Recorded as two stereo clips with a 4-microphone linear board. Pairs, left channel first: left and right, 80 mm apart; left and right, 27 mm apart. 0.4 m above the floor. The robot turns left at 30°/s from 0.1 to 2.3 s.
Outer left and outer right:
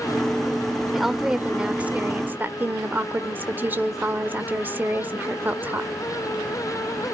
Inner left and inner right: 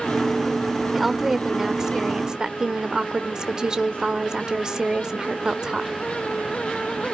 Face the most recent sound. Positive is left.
turn(degrees=-45)